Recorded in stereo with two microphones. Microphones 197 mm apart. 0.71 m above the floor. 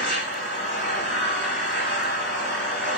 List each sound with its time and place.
0.0 s an engine running: 70° left (ahead or behind), 4 m